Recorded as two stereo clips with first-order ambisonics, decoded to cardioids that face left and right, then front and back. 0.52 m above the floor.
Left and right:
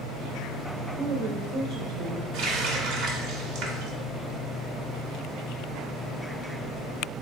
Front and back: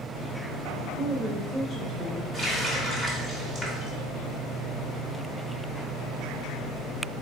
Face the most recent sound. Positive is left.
turn(degrees=-70)